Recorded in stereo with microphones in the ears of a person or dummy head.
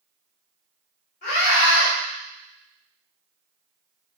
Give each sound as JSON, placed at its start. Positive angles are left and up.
{"t": 1.2, "sound": "a scream", "side_deg": 35, "distance_m": 3.5}